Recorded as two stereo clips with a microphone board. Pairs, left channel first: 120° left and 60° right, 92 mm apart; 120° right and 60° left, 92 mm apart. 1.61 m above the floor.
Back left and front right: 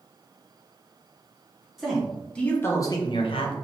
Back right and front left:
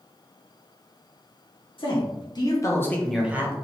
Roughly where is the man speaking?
Behind right.